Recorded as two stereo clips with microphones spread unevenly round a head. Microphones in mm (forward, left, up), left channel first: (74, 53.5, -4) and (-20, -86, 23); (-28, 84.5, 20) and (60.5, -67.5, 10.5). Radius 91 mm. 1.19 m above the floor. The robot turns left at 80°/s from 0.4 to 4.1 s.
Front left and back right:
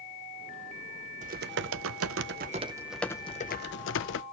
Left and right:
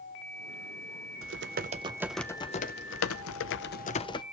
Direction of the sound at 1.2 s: 75° right.